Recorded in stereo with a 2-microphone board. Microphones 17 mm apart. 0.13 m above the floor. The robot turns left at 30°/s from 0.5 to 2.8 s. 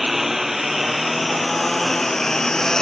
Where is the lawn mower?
10° right (ahead or behind); by 2.8 s 40° left (ahead or behind).